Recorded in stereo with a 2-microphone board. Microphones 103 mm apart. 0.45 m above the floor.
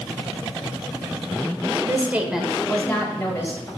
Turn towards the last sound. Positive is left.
turn(degrees=30)  # may be behind; listen again after turning